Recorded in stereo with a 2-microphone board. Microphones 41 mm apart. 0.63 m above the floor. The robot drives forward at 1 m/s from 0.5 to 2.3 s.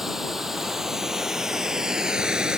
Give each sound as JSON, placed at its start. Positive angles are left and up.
{"t": 0.0, "sound": "running water", "side_deg": -10}